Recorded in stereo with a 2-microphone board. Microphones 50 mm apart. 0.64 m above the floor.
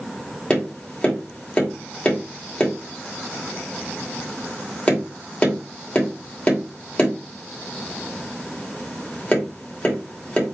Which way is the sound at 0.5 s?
25° left (ahead or behind).